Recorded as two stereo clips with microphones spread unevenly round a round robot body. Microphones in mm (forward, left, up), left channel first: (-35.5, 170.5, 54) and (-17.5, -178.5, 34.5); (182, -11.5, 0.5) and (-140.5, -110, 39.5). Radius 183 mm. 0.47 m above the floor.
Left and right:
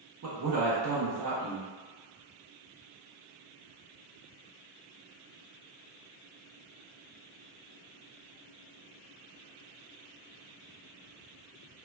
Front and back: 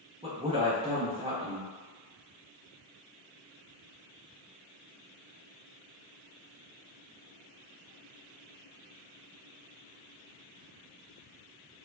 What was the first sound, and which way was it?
A man speaking, 85° right.